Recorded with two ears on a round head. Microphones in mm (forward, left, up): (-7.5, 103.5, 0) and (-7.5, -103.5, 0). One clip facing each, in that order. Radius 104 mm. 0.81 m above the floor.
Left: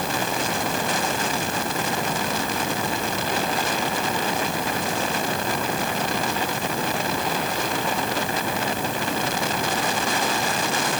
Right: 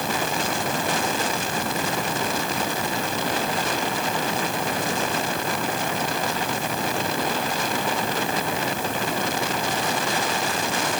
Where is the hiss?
I don't hear a hiss.